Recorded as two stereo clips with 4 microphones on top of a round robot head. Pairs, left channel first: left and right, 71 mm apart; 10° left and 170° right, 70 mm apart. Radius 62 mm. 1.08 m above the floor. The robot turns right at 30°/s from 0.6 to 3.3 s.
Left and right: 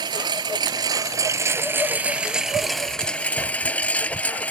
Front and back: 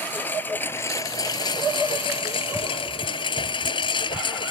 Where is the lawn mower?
65° right; by 4.5 s 20° left.